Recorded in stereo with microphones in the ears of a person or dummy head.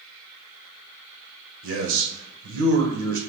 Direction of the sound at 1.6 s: 80° right.